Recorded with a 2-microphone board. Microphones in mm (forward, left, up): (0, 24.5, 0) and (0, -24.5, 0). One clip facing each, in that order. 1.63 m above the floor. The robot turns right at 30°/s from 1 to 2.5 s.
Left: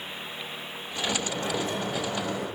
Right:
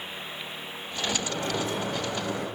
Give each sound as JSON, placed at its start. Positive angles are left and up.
{"t": 1.1, "sound": "a sliding door", "azimuth_deg": -135, "distance_m": 4.5}